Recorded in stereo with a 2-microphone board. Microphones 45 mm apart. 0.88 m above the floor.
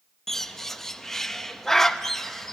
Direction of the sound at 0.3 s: 10° left (ahead or behind).